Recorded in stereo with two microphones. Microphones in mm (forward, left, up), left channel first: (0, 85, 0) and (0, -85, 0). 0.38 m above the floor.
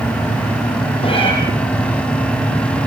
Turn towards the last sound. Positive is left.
turn(degrees=35)  # may be behind; listen again after turning